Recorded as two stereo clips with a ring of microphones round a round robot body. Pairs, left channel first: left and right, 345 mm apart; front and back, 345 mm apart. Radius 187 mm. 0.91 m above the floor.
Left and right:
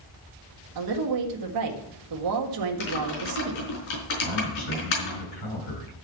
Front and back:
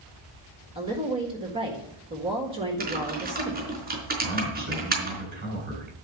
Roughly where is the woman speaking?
Right.